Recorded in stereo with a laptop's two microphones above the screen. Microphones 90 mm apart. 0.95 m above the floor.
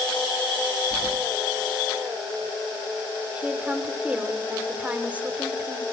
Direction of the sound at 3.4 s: 15° right (ahead or behind).